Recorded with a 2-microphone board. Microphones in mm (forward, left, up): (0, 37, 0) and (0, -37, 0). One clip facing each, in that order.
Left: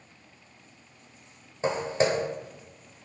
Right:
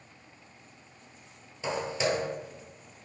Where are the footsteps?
40° left (ahead or behind), 0.7 m.